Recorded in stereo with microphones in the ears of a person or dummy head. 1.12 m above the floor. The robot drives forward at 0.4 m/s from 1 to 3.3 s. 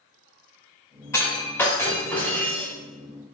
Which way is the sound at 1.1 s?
15° left (ahead or behind).